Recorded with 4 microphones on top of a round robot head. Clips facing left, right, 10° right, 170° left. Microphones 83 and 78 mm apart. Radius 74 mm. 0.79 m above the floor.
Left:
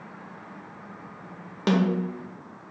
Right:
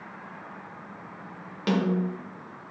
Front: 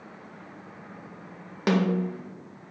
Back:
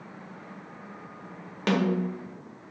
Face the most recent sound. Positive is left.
turn(degrees=60)